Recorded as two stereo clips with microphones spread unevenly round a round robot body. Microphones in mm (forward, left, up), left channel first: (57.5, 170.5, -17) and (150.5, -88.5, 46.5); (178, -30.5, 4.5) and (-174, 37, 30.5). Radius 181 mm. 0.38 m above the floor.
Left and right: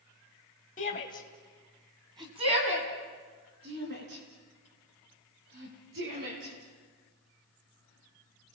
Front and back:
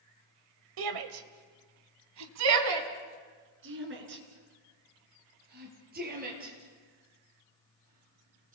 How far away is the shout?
About 1.6 m.